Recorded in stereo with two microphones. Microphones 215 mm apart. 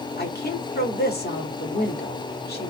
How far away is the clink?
No clink in this recording.